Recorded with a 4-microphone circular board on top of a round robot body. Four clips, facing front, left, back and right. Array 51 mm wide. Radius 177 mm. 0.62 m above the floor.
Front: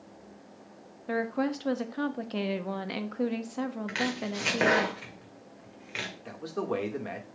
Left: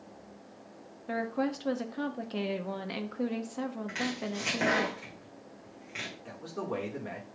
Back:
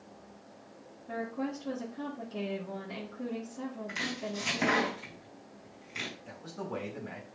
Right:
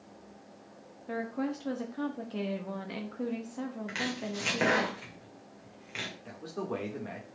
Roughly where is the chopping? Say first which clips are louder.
Left 1 dB, front 5 dB; ahead.